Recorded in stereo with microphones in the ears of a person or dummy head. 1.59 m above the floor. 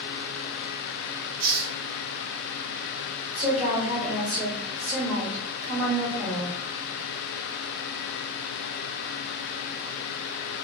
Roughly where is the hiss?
Right.